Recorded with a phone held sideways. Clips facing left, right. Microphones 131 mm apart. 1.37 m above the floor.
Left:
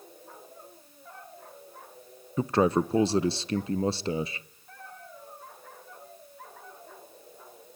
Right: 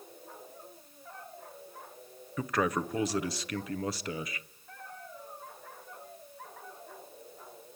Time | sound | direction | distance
2.4 | a man speaking | 30° left (ahead or behind) | 0.7 m